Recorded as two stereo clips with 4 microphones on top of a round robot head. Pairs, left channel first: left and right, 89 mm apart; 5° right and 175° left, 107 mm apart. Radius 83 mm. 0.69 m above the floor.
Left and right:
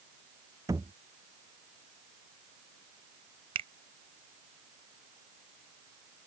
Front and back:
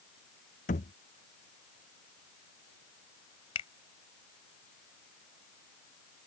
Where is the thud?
20° right.